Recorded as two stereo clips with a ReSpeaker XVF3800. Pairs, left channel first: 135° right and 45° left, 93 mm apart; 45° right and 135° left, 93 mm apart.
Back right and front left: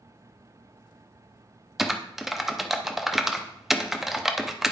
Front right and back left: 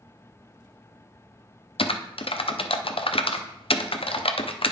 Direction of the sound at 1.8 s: 40° right.